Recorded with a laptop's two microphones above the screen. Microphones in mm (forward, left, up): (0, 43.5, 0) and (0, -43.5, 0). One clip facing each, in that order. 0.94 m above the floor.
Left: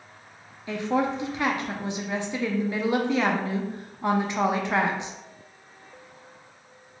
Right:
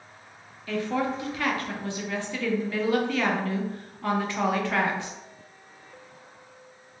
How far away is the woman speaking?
About 0.6 m.